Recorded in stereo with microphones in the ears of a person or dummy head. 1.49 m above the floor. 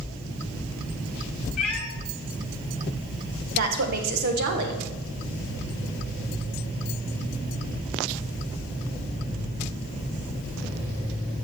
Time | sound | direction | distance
1.6 | a cat meowing | 5° left (ahead or behind) | 0.8 m
3.5 | a woman speaking | 55° right (ahead or behind) | 1.6 m